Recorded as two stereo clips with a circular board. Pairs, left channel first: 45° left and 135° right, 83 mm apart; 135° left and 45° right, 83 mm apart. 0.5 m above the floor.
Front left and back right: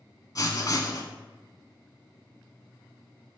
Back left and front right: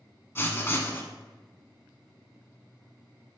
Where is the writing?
80° left, 0.6 m.